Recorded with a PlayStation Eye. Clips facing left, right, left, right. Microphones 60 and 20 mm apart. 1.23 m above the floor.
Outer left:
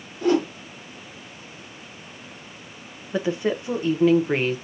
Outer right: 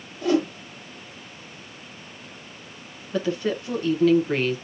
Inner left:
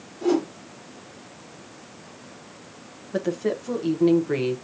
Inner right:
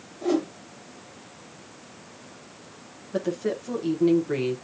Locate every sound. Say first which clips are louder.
0.2 s a whoosh: outer left 1 dB, inner left 2 dB; 45° left (ahead or behind), 3 m
3.1 s a woman speaking: outer left 1 dB, inner left 2 dB; 15° left (ahead or behind), 1.0 m